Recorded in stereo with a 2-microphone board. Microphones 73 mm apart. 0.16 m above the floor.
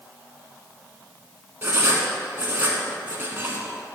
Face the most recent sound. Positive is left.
turn(degrees=-25)  # may be behind; listen again after turning